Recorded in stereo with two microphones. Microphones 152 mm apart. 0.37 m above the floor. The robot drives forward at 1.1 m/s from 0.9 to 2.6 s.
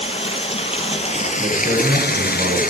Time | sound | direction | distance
0.0 | running water | 35° left (ahead or behind) | 1.8 m
1.4 | a man speaking | 80° right | 9 m